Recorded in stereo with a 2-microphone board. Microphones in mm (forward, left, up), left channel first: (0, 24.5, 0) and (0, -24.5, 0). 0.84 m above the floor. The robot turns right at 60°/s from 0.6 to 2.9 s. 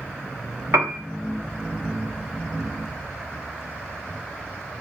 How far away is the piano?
About 1.2 m.